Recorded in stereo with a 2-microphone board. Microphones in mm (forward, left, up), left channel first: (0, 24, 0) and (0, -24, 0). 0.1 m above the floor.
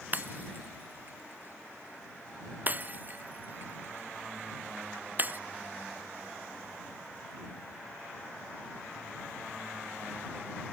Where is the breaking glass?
35° right (ahead or behind).